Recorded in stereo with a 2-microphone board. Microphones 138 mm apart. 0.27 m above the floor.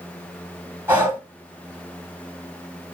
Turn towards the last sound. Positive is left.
turn(degrees=-15)  # may be behind; listen again after turning